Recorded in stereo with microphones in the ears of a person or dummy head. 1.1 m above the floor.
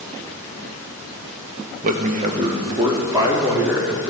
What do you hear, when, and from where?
1.8 s a man speaking: 50° right (ahead or behind), 0.9 m; by 4.1 s 15° right (ahead or behind), 2.5 m